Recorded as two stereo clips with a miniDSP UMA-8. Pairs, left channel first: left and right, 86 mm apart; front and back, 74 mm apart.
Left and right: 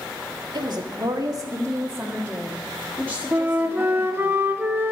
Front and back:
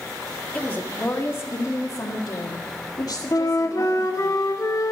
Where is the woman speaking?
75° right, 2 m; by 4.3 s 35° left, 3 m.